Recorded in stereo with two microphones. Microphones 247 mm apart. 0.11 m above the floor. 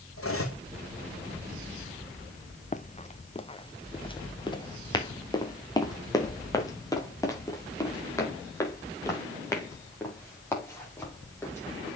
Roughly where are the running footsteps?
Left.